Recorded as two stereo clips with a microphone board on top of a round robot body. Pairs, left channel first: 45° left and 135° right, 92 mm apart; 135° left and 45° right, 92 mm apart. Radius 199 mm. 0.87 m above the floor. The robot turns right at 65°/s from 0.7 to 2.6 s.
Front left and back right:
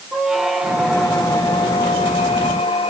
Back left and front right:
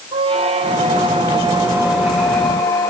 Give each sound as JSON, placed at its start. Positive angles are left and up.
{"t": 0.1, "sound": "a squeak", "azimuth_deg": -50, "distance_m": 1.0}